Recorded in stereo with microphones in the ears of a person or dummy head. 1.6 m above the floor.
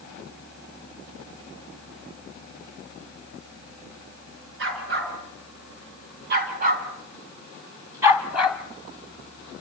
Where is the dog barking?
70° right (ahead or behind), 6 m; by 8.6 s centre (ahead or behind), 3 m.